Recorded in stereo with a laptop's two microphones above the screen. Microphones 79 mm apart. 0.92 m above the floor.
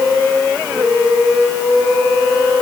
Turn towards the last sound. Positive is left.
No sound to turn to.